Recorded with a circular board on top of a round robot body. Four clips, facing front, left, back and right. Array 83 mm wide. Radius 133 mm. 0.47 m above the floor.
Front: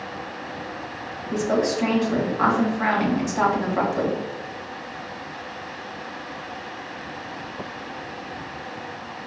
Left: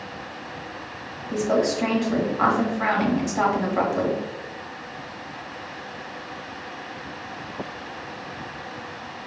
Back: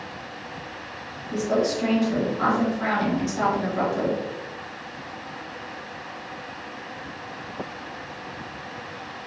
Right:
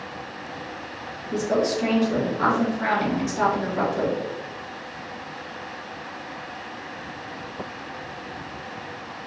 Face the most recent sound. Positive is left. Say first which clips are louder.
# left 1 dB, front 1 dB
turn(degrees=45)